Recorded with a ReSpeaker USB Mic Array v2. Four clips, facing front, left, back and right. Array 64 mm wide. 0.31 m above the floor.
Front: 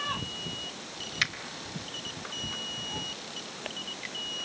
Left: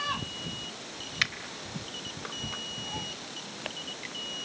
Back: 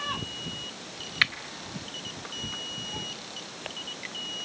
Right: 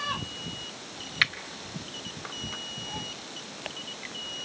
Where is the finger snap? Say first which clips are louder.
Right 4 dB, back 5 dB; 140° right, 1.2 m.